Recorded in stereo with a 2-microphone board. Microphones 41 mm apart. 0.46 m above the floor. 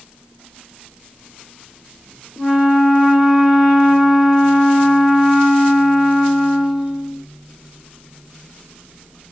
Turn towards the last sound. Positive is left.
turn(degrees=-5)  # may be behind; listen again after turning